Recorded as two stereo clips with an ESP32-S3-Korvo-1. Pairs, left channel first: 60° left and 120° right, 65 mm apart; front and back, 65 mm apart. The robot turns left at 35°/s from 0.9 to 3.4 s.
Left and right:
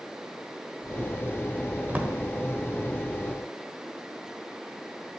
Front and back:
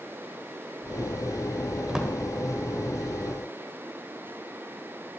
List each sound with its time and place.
1.9 s a drawer: 110° right, 1.5 m; by 2.1 s 115° right, 1.5 m